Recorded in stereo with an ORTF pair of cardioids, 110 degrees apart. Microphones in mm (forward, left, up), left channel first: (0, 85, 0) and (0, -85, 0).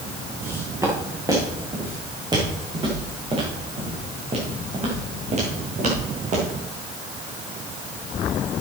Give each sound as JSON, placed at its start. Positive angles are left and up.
{"t": 0.4, "sound": "footsteps", "azimuth_deg": -15, "distance_m": 6.5}